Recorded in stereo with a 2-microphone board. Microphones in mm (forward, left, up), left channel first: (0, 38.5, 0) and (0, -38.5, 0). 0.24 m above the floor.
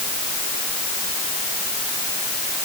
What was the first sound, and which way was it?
Only background noise.